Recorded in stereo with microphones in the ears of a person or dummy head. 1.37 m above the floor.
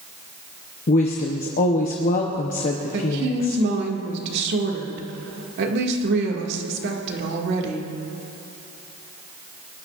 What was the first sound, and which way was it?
A woman speaking, 35° left (ahead or behind).